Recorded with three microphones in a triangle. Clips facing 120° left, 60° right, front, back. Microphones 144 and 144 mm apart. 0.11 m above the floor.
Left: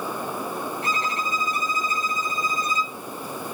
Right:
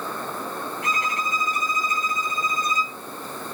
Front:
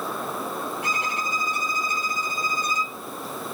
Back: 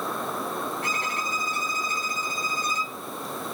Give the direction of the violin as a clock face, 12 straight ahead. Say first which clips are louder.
Even, front 2 dB; 10 o'clock.